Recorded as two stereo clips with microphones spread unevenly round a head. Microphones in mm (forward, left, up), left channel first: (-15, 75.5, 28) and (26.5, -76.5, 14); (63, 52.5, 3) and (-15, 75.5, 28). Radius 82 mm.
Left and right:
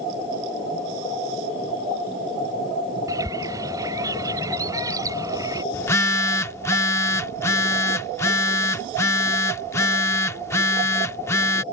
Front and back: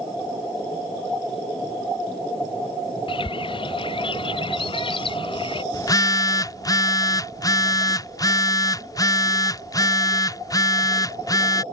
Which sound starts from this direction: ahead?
A bird, at 3.1 s.